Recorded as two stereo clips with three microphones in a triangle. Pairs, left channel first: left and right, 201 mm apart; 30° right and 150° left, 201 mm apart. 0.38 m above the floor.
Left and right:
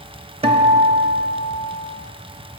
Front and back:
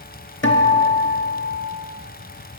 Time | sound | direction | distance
0.4 | a guitar | 25° right | 0.7 m